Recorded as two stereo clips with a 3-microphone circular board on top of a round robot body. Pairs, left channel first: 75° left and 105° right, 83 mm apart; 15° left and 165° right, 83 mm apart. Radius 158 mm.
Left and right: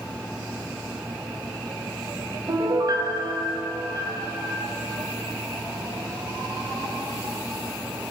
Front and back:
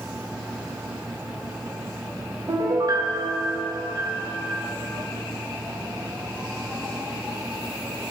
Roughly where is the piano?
Behind right.